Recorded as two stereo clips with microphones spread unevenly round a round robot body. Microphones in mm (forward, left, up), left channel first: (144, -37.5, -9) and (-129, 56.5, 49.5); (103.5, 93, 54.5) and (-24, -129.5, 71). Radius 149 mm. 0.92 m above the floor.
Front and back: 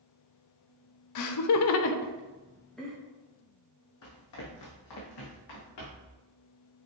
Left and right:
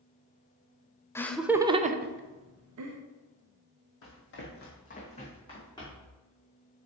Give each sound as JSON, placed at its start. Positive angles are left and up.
{"t": 1.1, "sound": "laughter", "azimuth_deg": -20, "distance_m": 0.7}
{"t": 4.0, "sound": "running footsteps", "azimuth_deg": 25, "distance_m": 1.8}